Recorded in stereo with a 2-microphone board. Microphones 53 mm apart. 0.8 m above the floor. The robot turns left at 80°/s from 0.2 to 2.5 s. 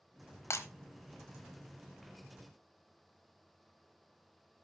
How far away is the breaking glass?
About 1.0 m.